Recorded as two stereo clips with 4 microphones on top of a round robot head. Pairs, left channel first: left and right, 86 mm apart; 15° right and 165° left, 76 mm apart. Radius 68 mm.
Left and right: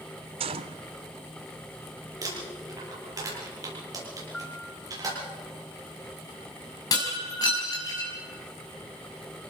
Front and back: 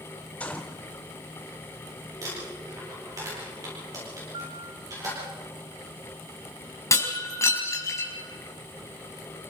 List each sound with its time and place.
0.4 s a gunshot: 90° right, 0.7 m
2.2 s crumpling: 135° right, 8.5 m
4.3 s a piano: 170° left, 2 m
6.9 s breaking glass: 40° left, 4.5 m